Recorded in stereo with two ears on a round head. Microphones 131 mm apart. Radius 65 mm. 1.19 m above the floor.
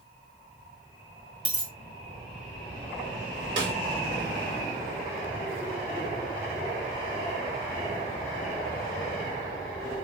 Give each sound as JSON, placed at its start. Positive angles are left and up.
{"t": 1.4, "sound": "a dropped coin", "side_deg": 10, "distance_m": 2.5}
{"t": 3.6, "sound": "a snare drum", "side_deg": -30, "distance_m": 1.8}